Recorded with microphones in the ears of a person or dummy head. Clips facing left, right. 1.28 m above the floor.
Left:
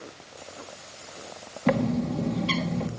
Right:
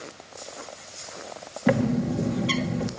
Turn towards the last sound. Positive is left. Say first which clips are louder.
# right 2 dB
turn(degrees=-10)  # may be behind; listen again after turning